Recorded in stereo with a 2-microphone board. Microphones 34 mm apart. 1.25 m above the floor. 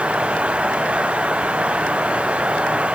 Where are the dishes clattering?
No dishes clattering in this recording.